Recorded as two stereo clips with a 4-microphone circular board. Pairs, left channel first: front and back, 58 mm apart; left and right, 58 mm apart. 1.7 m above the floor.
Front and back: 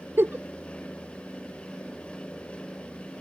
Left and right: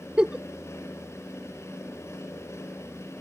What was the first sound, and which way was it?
A giggle, 160° right.